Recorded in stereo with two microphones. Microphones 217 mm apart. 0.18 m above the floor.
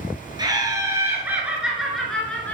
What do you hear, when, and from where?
0.4 s laughter: 20° right (ahead or behind), 2.5 m; by 2.5 s 10° left (ahead or behind), 2.5 m